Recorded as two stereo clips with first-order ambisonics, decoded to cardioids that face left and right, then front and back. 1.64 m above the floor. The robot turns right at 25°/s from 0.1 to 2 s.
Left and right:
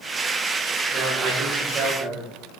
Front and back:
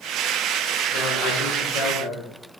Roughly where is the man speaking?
Ahead right.